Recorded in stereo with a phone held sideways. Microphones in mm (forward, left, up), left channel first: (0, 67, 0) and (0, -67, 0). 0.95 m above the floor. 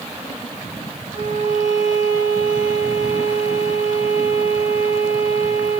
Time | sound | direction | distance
1.1 | a violin | 85° right | 1.3 m